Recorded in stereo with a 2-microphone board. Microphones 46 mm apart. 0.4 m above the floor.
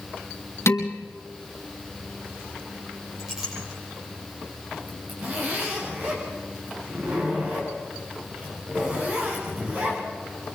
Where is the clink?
10° right (ahead or behind), 9.5 m.